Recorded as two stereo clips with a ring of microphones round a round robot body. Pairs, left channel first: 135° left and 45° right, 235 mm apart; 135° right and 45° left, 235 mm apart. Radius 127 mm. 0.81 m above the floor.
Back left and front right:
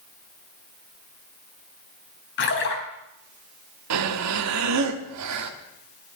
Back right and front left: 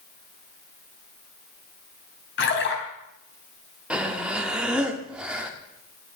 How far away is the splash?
About 3.5 m.